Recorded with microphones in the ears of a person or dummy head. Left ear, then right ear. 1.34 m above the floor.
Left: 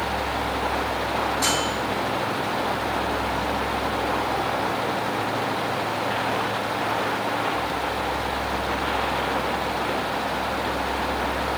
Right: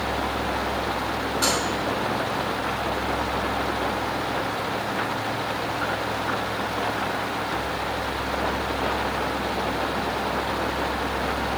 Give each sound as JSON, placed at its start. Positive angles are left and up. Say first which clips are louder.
{"t": 1.4, "sound": "a microwave", "louder": "right 2 dB", "side_deg": 15, "distance_m": 4.5}